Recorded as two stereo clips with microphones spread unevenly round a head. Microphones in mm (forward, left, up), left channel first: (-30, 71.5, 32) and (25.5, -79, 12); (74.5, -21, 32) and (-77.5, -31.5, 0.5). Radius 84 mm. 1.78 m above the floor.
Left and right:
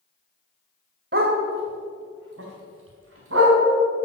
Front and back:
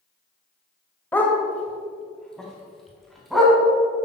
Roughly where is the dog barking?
Ahead right.